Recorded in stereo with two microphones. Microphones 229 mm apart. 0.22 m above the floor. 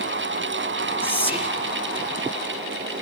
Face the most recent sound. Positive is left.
turn(degrees=-5)  # may be behind; listen again after turning